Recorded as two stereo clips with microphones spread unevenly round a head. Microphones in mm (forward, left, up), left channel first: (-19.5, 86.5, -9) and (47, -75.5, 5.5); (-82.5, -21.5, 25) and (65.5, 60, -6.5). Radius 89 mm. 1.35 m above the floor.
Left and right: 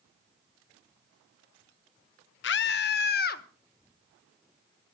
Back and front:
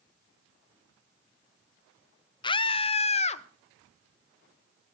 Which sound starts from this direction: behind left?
A scream, at 2.4 s.